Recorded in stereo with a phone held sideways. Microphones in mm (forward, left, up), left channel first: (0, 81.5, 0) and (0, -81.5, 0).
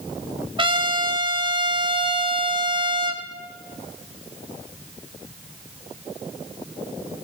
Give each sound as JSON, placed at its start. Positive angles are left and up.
{"t": 0.6, "sound": "a trumpet", "side_deg": -30, "distance_m": 0.7}